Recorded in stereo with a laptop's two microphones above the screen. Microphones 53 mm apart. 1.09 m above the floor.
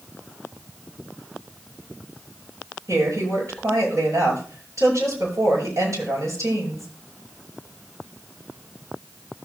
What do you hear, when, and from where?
2.9 s a woman speaking: 65° right (ahead or behind), 7.5 m